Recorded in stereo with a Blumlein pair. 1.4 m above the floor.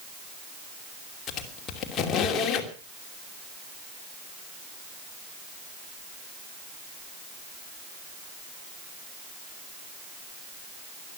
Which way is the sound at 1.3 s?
25° left.